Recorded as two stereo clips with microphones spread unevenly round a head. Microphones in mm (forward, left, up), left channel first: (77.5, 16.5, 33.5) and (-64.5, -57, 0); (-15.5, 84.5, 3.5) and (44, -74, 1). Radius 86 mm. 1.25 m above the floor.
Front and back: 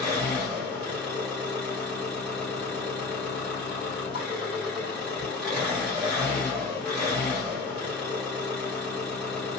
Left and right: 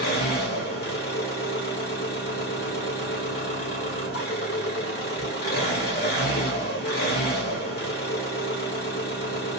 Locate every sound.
0.0 s an engine running: 100° left, 1.5 m